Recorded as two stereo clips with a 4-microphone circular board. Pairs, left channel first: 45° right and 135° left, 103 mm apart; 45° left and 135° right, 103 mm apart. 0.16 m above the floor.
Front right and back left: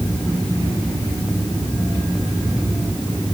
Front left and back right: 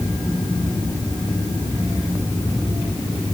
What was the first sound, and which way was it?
Only background noise.